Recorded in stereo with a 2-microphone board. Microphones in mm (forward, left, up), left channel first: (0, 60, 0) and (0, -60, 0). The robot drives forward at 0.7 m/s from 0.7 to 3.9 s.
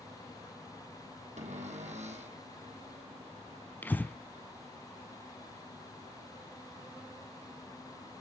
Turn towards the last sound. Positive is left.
turn(degrees=15)  # may be behind; listen again after turning